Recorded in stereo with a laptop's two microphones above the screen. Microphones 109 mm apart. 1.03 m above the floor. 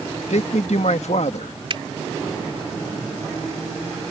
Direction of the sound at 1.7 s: 50° right (ahead or behind).